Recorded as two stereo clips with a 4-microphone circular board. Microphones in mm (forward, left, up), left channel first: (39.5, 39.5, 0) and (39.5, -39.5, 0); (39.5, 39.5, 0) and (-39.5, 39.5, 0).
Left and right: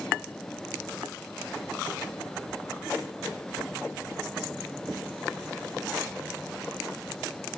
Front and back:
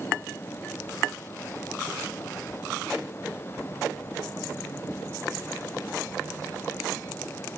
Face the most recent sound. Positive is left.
No sound to turn to.